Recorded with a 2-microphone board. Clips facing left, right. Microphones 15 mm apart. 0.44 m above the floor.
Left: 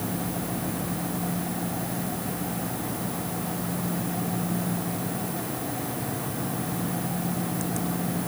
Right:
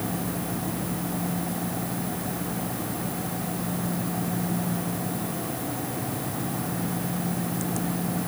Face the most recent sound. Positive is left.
No sound to turn to.